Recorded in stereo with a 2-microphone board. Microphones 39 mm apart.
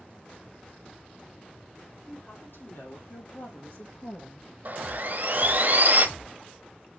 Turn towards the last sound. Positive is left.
turn(degrees=-50)  # may be behind; listen again after turning